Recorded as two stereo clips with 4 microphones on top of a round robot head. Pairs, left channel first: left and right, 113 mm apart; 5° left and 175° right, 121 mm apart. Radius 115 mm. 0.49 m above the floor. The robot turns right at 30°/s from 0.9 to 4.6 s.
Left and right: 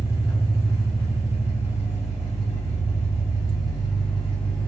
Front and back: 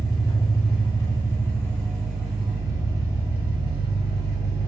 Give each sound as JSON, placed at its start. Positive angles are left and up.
{"t": 0.0, "sound": "an engine running", "azimuth_deg": 60, "distance_m": 1.9}